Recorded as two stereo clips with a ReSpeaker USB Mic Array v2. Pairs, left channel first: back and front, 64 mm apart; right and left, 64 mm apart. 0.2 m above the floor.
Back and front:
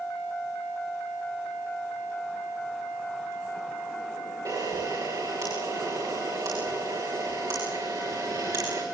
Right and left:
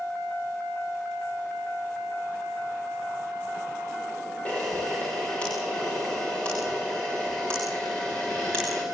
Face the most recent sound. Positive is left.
turn(degrees=-15)